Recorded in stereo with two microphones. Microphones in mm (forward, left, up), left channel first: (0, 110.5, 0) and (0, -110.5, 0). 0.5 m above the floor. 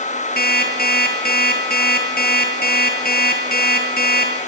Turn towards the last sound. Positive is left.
turn(degrees=45)  # may be behind; listen again after turning